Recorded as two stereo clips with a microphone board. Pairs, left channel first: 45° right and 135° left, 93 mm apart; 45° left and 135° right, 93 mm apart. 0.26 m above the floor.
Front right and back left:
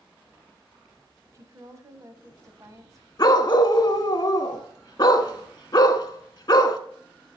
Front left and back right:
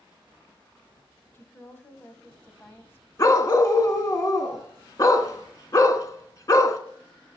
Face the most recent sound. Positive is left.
turn(degrees=-5)